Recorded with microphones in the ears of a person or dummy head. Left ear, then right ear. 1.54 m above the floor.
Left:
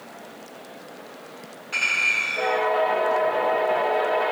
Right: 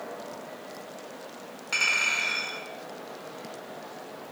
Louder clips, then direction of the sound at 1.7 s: Left 3 dB; 30° right (ahead or behind).